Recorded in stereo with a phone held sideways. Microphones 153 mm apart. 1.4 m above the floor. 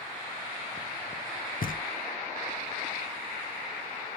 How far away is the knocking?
About 0.6 m.